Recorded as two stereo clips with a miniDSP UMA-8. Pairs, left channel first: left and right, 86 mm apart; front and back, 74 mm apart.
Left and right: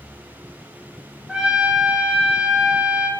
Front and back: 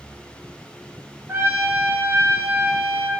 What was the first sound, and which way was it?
A trumpet, 160° right.